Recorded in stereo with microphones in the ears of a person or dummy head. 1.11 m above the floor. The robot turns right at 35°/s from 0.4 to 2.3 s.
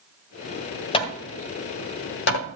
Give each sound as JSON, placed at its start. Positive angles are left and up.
{"t": 0.9, "sound": "hammering", "side_deg": 30, "distance_m": 1.6}